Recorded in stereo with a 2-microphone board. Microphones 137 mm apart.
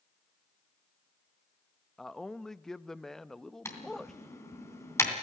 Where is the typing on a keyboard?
20° left (ahead or behind), 3 m.